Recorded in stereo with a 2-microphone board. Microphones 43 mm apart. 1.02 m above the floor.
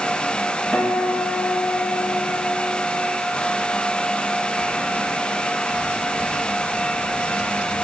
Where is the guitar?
60° left (ahead or behind), 3.5 m.